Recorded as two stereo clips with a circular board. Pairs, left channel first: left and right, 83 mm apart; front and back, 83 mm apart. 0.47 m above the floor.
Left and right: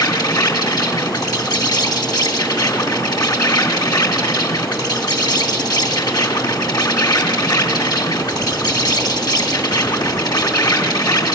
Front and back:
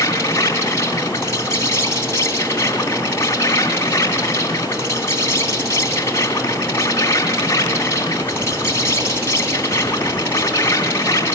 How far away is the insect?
About 3 m.